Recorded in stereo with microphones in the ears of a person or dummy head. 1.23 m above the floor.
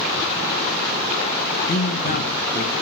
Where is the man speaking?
45° left (ahead or behind), 1.5 m.